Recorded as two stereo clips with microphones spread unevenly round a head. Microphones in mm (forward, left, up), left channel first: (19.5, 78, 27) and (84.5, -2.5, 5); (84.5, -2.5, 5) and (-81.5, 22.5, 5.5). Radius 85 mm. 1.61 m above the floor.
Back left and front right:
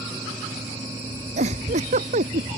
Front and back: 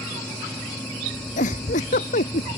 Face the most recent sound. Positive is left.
turn(degrees=-60)